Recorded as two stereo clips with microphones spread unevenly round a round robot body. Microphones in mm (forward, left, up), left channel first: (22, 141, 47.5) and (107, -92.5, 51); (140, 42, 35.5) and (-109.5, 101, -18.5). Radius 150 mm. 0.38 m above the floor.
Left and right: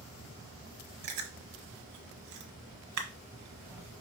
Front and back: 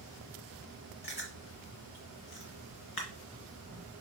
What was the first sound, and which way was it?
Chewing, 85° right.